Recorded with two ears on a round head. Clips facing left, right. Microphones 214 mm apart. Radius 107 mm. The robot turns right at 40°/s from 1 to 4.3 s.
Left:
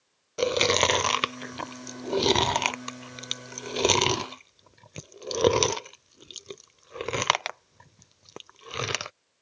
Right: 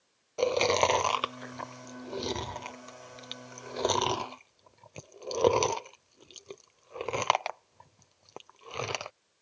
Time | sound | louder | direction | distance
0.4 | chewing | left 1 dB | 25° left (ahead or behind) | ?